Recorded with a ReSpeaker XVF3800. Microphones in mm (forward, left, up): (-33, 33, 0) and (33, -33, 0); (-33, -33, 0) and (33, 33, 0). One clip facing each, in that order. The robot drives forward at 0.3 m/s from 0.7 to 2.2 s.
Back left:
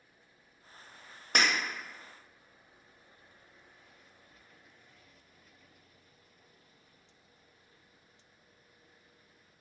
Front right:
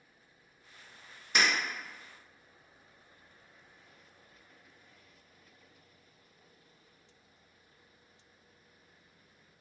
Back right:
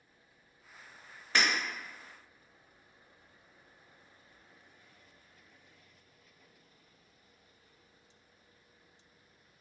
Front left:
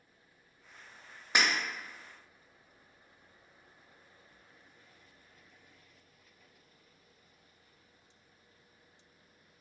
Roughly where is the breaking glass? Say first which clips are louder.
Even, even; behind left.